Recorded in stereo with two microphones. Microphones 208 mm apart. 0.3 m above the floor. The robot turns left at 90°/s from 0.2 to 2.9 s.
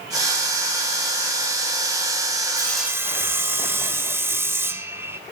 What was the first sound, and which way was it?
Sawing, 20° left.